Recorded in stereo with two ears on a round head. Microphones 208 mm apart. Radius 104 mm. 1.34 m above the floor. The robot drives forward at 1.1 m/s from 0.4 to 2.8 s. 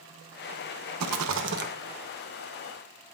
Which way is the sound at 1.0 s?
75° right (ahead or behind).